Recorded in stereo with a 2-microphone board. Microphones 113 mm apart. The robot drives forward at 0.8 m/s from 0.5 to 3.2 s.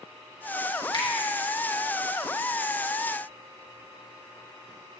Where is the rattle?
I don't hear a rattle.